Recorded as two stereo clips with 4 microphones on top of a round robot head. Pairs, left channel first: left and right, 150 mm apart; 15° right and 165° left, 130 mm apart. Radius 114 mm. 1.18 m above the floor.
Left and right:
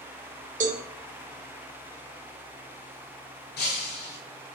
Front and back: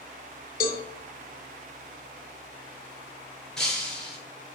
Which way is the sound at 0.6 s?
40° right.